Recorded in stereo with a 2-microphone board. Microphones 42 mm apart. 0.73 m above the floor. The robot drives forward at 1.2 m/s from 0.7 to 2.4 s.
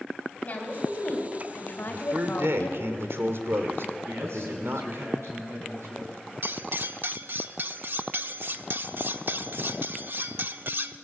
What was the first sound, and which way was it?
A woman speaking, 35° left (ahead or behind).